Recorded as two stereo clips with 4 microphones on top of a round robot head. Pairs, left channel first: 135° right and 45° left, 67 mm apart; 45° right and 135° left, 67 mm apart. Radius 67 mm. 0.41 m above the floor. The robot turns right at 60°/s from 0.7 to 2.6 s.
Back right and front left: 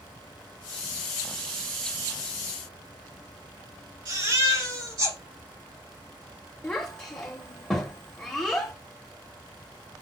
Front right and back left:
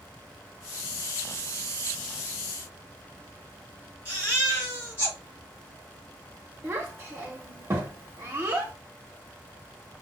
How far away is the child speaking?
About 1.0 m.